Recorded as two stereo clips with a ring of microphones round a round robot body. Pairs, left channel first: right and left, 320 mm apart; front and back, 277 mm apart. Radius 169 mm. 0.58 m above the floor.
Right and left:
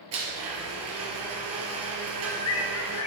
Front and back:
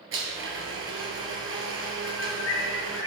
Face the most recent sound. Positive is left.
turn(degrees=-45)